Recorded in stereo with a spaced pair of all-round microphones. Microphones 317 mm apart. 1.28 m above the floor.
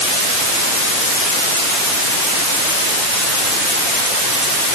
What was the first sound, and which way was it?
Only background noise.